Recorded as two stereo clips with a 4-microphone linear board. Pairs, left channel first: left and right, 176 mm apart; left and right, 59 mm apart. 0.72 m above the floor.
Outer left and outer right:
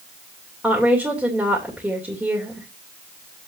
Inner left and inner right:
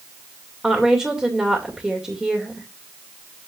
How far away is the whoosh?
I don't hear a whoosh.